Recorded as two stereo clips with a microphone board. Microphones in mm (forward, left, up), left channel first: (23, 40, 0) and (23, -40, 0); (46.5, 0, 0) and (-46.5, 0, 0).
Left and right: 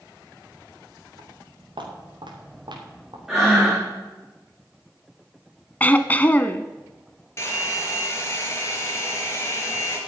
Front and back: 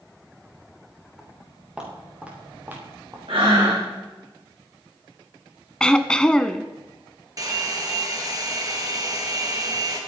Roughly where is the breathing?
Behind.